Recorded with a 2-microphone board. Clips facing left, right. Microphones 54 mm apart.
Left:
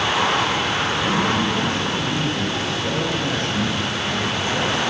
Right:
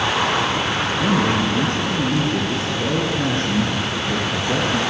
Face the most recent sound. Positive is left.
turn(degrees=-65)  # may be behind; listen again after turning